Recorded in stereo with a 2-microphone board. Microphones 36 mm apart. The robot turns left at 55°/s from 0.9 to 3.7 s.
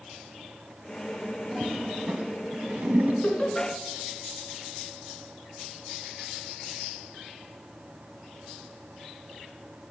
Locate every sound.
1.5 s a toilet flushing: 5° left (ahead or behind), 1.7 m; by 3.1 s 60° right (ahead or behind), 1.7 m
3.2 s laughter: 30° left (ahead or behind), 3 m; by 3.7 s 5° left (ahead or behind), 3 m